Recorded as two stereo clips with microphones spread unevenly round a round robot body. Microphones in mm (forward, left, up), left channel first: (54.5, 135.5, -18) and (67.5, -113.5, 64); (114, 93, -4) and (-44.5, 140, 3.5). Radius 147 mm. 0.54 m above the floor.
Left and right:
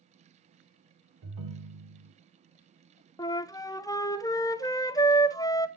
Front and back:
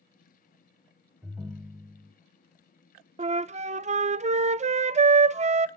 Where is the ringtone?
110° right, 0.9 m.